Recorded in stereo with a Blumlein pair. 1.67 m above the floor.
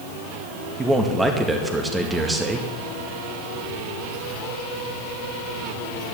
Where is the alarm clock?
No alarm clock in this recording.